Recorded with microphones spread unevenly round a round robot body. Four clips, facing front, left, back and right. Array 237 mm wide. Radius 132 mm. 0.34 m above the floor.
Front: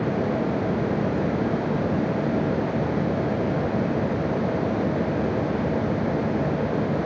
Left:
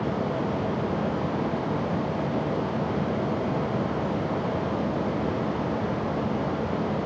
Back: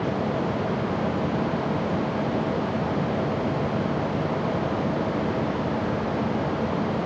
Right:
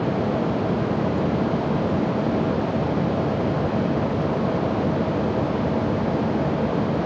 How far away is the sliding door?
No sliding door in this recording.